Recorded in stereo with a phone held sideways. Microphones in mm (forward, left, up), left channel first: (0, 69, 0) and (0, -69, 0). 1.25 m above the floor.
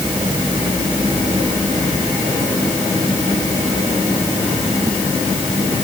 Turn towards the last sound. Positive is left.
No sound to turn to.